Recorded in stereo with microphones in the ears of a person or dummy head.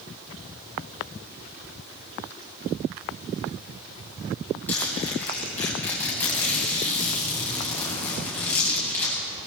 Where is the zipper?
5° left (ahead or behind), 10 m.